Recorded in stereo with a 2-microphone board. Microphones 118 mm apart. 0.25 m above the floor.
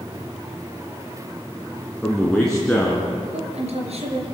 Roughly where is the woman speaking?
Right.